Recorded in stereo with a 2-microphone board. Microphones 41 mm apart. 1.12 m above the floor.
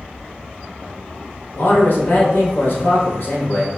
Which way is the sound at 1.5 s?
65° left (ahead or behind).